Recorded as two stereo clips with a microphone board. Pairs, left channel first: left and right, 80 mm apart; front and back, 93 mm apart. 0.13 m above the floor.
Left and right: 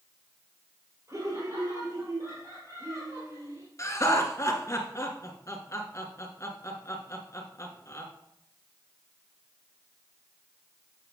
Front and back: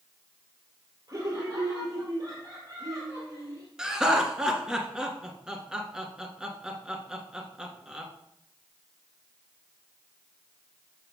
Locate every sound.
1.1 s laughter: 135° right, 2.5 m
3.8 s laughter: 105° left, 1.7 m